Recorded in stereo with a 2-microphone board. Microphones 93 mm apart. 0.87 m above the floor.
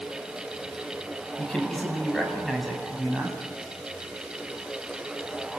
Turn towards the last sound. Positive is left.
turn(degrees=-10)  # may be behind; listen again after turning